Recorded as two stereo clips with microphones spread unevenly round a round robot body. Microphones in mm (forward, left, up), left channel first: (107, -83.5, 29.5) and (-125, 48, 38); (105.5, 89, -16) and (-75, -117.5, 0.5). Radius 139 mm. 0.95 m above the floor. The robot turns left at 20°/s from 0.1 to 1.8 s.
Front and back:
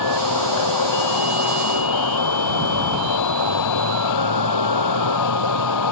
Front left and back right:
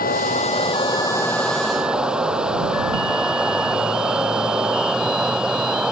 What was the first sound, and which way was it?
Running water, 10° right.